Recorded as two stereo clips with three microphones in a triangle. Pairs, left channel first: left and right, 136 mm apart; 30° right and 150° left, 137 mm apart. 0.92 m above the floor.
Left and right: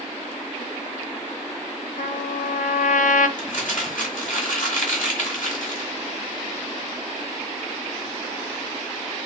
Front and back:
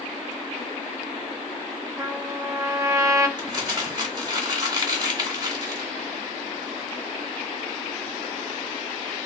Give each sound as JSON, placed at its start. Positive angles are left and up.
{"t": 2.0, "sound": "a trumpet", "azimuth_deg": 85, "distance_m": 0.5}
{"t": 3.4, "sound": "crumpling", "azimuth_deg": 95, "distance_m": 1.4}